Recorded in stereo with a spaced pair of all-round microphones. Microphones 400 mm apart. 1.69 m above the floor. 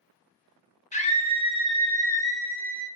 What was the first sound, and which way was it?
A scream, 20° left (ahead or behind).